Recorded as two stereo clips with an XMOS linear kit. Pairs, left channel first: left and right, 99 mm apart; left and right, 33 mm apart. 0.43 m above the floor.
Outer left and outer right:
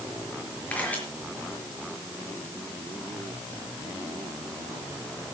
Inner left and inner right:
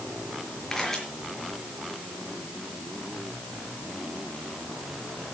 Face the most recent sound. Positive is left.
turn(degrees=15)  # may be behind; listen again after turning